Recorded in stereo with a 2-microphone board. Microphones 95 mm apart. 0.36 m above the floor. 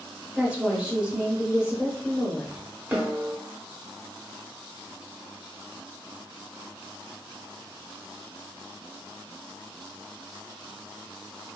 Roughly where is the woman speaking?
Centre.